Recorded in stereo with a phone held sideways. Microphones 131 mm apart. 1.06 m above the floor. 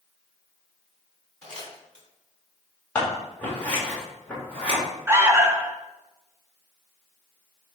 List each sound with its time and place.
1.4 s crumpling: 5° left (ahead or behind), 3 m
3.0 s scissors: 10° left (ahead or behind), 2.5 m
5.1 s an alarm: 20° right (ahead or behind), 0.6 m